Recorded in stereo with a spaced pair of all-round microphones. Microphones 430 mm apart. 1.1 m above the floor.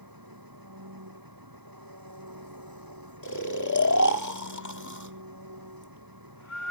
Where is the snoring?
45° left (ahead or behind).